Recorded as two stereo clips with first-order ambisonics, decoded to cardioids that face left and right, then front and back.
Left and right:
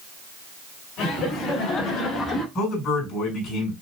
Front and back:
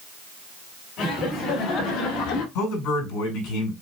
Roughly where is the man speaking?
Ahead left.